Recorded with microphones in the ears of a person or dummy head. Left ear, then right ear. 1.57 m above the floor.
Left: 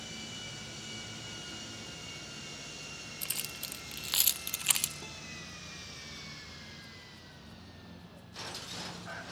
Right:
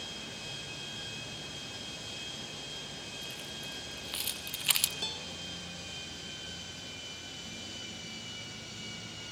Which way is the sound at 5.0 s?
45° right (ahead or behind).